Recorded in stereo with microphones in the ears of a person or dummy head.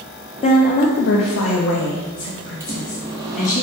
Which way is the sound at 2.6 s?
15° right (ahead or behind).